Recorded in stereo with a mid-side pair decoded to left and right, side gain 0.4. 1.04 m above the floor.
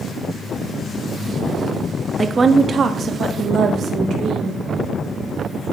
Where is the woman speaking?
35° right, 1.3 m; by 4.6 s 75° right, 2.5 m.